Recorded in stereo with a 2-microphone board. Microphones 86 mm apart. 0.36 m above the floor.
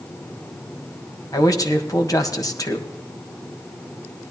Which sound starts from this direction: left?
A man speaking, at 1.3 s.